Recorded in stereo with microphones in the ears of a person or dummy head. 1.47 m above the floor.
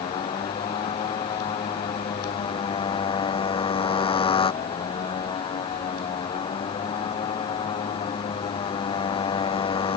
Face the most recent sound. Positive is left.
turn(degrees=30)  # may be behind; listen again after turning